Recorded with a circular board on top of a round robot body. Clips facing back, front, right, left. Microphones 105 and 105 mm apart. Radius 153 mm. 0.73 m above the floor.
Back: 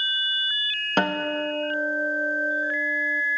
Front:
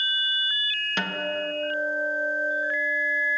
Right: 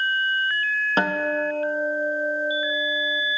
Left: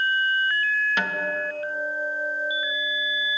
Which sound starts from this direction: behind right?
A guitar, at 1.0 s.